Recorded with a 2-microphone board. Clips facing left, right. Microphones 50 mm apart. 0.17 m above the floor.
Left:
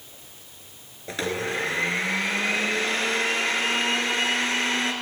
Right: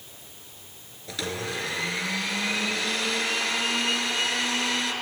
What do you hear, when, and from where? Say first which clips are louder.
1.1 s a blender: left 4 dB; 35° left (ahead or behind), 0.8 m